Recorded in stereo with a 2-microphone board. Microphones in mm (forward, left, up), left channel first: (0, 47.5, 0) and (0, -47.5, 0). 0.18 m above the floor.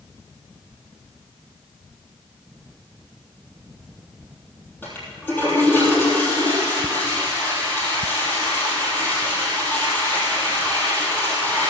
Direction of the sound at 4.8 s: 20° left (ahead or behind).